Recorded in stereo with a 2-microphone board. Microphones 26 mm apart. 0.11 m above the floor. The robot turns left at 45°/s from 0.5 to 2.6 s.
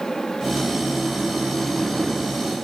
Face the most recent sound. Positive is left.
No sound to turn to.